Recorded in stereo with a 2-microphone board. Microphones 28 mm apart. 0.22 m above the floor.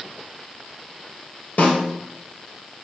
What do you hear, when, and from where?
1.6 s a snare drum: 70° left (ahead or behind), 2.5 m